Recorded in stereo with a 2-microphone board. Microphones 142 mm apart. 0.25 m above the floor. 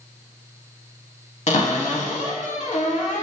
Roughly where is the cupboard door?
Left.